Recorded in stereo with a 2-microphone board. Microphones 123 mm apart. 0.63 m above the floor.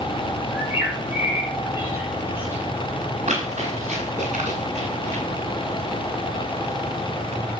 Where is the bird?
20° right (ahead or behind), 6.5 m.